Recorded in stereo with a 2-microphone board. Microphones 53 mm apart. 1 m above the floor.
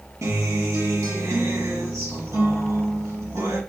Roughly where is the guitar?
Right.